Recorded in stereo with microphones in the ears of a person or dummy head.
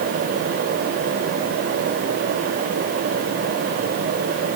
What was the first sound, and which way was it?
Only background noise.